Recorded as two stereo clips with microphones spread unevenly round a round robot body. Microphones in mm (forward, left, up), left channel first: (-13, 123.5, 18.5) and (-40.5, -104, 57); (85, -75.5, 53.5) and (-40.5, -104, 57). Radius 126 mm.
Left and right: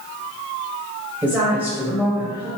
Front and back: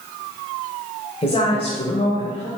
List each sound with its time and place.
1.2 s a woman speaking: 5° right, 1.6 m